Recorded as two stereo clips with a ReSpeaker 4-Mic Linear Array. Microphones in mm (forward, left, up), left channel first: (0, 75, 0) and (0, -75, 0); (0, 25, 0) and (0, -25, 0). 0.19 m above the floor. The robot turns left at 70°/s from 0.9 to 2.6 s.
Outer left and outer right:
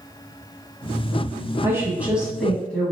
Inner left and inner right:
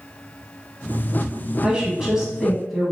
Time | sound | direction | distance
1.6 | a woman speaking | 20° right (ahead or behind) | 1.5 m